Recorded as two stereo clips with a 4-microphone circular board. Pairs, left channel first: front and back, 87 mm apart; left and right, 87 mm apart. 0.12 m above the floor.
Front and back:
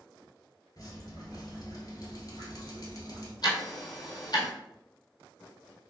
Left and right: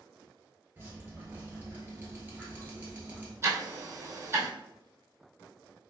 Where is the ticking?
35° right, 1.4 m.